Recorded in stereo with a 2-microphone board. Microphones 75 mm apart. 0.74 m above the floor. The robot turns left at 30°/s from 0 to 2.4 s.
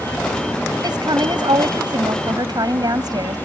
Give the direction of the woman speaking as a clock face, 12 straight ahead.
2 o'clock.